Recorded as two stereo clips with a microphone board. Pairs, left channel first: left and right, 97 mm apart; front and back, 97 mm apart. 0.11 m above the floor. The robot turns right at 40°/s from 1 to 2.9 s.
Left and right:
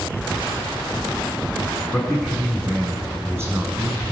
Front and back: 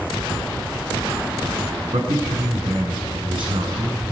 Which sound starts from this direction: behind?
A man speaking, at 1.9 s.